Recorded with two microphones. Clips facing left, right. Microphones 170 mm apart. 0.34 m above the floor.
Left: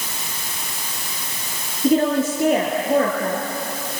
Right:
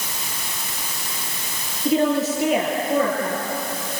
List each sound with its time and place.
1.8 s a woman speaking: 50° left (ahead or behind), 5.5 m